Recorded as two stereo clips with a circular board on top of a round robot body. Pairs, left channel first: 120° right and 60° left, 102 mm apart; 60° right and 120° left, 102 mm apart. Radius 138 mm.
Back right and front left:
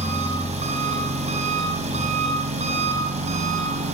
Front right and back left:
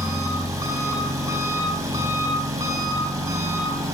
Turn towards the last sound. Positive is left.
turn(degrees=60)